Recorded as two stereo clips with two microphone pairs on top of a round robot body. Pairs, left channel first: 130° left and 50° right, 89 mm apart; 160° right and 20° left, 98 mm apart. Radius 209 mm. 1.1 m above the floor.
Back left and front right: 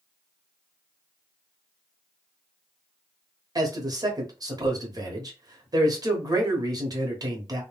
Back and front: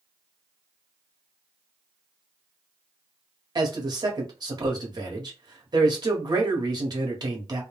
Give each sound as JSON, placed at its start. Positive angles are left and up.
{"t": 3.5, "sound": "a man speaking", "azimuth_deg": -20, "distance_m": 1.1}